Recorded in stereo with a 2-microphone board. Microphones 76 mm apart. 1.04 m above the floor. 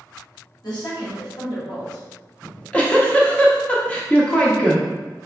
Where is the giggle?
15° left (ahead or behind), 0.9 m.